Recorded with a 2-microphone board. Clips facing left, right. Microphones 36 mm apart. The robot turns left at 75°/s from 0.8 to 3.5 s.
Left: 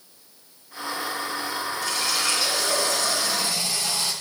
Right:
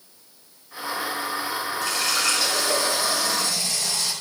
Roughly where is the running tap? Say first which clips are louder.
Right 2 dB; right.